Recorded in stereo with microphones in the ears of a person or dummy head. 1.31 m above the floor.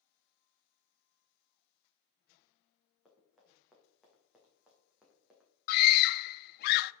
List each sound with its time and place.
3.0 s running footsteps: 5° right (ahead or behind), 5 m
5.7 s a scream: 55° left (ahead or behind), 0.6 m